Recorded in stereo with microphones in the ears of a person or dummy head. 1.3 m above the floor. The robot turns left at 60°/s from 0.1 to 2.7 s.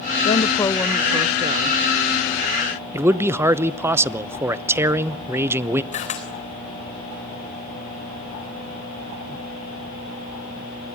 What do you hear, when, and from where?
0.2 s a woman speaking: 40° left, 0.5 m; by 1.8 s 50° right, 0.5 m
2.9 s a man speaking: 15° right (ahead or behind), 0.9 m
5.9 s a camera shutter: 40° left (ahead or behind), 3.5 m